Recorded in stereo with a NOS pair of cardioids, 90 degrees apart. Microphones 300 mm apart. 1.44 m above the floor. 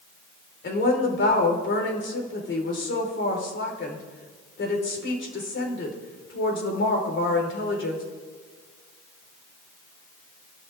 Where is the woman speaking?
40° left, 5 m.